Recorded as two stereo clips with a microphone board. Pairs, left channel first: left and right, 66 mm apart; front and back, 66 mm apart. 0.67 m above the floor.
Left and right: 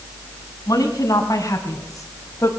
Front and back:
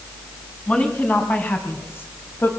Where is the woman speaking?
70° left, 5.5 m; by 2.5 s 50° left, 4 m.